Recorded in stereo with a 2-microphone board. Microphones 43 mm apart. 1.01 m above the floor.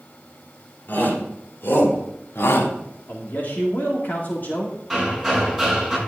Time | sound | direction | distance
0.9 | a shout | 55° left (ahead or behind) | 3.5 m
3.1 | a man speaking | 50° left (ahead or behind) | 1.9 m
4.9 | hammering | 5° left (ahead or behind) | 6.5 m